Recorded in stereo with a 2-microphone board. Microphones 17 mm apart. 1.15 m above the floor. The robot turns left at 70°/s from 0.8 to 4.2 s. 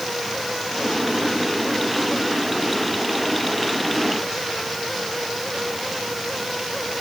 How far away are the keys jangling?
I don't hear keys jangling.